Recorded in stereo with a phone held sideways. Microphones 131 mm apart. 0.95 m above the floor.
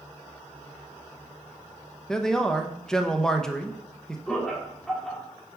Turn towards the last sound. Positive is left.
turn(degrees=5)  # may be behind; listen again after turning